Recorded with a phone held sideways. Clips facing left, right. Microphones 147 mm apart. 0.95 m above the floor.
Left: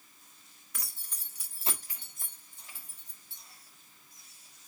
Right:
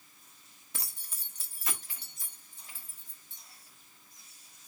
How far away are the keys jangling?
About 1.0 m.